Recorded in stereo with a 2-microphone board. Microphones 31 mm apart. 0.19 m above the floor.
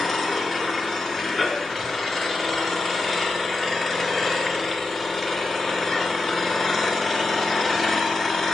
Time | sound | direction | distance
0.0 | an engine running | 10° left (ahead or behind) | 1.3 m